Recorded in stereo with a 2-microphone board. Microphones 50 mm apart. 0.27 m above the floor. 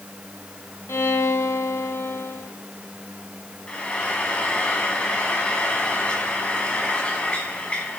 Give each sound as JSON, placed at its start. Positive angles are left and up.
{"t": 0.9, "sound": "a violin", "side_deg": 55, "distance_m": 1.2}
{"t": 3.7, "sound": "frying", "side_deg": 20, "distance_m": 1.8}